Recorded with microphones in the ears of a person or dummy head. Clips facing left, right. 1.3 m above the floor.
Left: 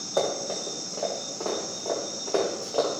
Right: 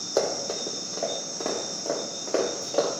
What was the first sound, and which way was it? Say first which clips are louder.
Running footsteps: right 1 dB; 35° right (ahead or behind).